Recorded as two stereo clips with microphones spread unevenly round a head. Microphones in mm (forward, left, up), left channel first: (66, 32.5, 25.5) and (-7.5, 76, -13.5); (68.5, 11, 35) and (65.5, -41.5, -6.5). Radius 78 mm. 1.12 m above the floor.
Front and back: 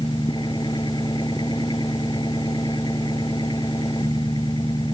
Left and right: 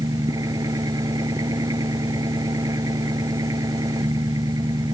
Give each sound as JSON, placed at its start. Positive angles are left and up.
{"t": 0.0, "sound": "an engine running", "azimuth_deg": -95}